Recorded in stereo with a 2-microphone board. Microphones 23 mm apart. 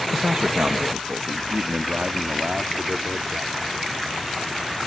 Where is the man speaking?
65° right (ahead or behind); by 3.9 s 80° right.